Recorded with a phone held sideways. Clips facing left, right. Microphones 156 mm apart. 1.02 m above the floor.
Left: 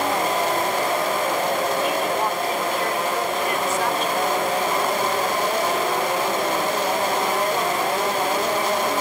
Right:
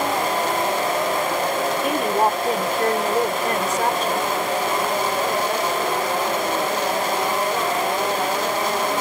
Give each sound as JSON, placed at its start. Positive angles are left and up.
{"t": 1.8, "sound": "a woman speaking", "side_deg": -50}